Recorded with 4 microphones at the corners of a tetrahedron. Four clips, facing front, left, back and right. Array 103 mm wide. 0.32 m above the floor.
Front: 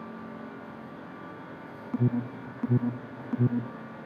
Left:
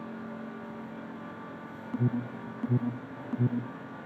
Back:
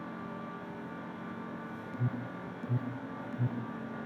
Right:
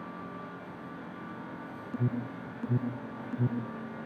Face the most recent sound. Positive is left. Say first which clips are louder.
# left 3 dB, front 11 dB
turn(degrees=15)